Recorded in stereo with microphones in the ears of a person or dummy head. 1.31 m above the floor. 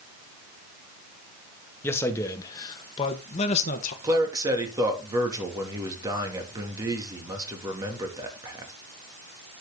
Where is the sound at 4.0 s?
20° right (ahead or behind), 3 m.